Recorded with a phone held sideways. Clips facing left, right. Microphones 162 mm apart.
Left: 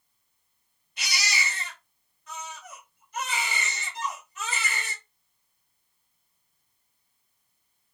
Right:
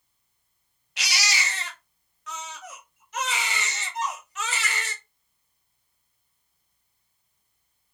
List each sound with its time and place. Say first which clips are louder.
1.0 s a baby crying: right 2 dB; 80° right, 0.5 m
3.9 s a violin: right 4 dB; 60° right (ahead or behind), 1.1 m